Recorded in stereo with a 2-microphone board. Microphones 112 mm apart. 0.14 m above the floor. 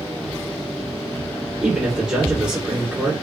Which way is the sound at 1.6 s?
5° right (ahead or behind).